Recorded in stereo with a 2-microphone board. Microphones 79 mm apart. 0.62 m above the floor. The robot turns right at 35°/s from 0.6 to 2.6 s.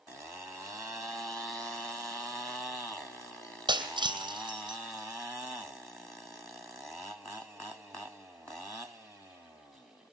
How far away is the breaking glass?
About 3.5 m.